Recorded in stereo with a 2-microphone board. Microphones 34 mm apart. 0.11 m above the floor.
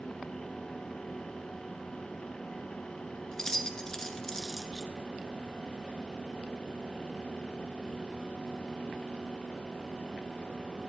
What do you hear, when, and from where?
3.3 s keys jangling: 15° left (ahead or behind), 0.9 m